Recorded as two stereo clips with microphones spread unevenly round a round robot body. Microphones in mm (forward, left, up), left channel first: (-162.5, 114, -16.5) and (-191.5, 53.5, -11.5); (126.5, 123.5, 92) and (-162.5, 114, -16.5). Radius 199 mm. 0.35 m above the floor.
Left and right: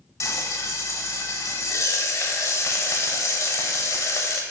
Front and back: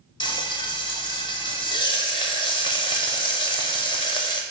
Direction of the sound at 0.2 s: 90° left.